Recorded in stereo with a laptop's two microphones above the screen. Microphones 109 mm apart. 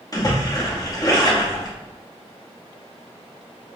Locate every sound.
0.1 s a splash: 30° left (ahead or behind), 0.8 m